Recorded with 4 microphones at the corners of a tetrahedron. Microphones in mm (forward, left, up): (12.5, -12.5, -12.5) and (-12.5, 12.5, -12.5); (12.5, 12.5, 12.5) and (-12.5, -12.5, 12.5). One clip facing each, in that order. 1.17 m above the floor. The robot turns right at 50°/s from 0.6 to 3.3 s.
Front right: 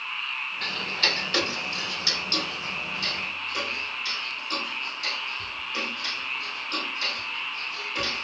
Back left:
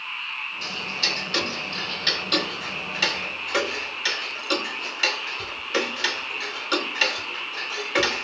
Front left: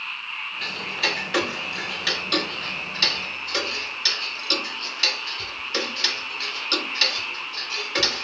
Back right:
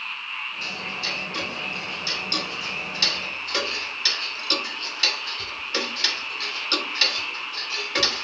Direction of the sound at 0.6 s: 5° left.